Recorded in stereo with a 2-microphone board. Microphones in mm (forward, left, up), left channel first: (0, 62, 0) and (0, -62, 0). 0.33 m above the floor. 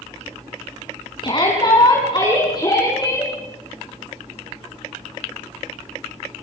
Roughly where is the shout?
Left.